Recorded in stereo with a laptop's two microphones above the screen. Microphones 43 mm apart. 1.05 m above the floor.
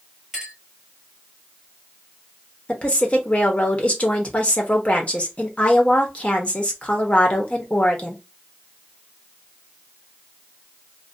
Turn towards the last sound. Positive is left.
turn(degrees=30)  # may be behind; listen again after turning